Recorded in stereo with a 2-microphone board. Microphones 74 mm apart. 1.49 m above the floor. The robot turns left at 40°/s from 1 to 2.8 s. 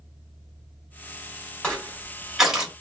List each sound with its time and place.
1.6 s crushing: 15° left (ahead or behind), 1.2 m; by 2.7 s 15° right (ahead or behind), 1.2 m